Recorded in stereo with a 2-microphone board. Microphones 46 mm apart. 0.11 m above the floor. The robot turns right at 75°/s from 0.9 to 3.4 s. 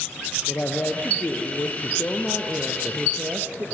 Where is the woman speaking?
40° left, 2 m; by 3.6 s 130° right, 2 m.